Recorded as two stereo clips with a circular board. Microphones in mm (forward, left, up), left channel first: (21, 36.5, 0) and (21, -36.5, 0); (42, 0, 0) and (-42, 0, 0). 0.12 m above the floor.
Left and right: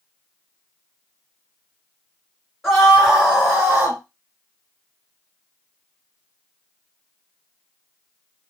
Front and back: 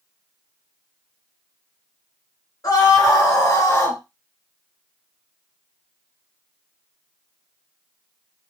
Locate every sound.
2.6 s a scream: straight ahead, 2 m; by 4.0 s 40° right, 2 m